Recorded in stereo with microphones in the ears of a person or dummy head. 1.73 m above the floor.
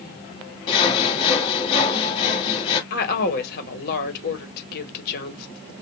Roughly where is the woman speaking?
Left.